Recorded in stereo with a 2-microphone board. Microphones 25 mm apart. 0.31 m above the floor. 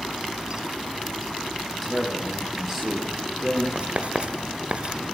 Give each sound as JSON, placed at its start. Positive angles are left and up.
{"t": 1.8, "sound": "a man speaking", "side_deg": 5, "distance_m": 10.0}
{"t": 3.8, "sound": "writing", "side_deg": -50, "distance_m": 1.4}